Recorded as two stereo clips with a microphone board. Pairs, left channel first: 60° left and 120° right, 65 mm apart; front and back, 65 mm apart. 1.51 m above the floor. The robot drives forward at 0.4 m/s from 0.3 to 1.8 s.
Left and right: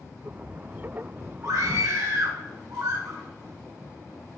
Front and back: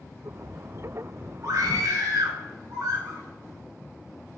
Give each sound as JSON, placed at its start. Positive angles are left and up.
{"t": 1.4, "sound": "a scream", "azimuth_deg": -140, "distance_m": 1.7}